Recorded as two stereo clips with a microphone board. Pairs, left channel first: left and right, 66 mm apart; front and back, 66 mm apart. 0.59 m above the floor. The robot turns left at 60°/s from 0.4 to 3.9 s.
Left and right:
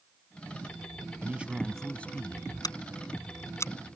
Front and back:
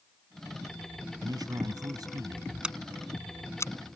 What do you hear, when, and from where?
1.2 s a man speaking: 150° right; by 2.5 s 130° left
2.6 s scissors: 105° left; by 3.7 s 40° left